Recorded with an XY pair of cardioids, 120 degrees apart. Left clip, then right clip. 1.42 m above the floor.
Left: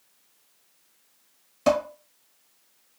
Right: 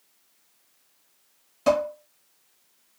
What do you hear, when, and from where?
1.7 s dishes clattering: 15° left, 1.3 m